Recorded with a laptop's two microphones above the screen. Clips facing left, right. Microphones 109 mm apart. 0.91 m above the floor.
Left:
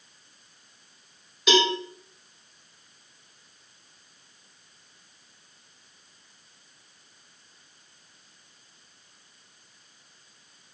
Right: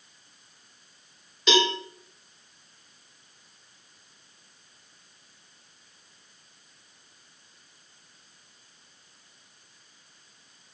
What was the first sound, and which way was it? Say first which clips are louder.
A cowbell: left 1 dB; 5° left (ahead or behind).